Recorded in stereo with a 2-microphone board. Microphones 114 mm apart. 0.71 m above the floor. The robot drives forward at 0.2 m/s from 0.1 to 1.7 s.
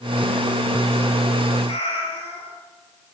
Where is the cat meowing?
60° left (ahead or behind), 5 m.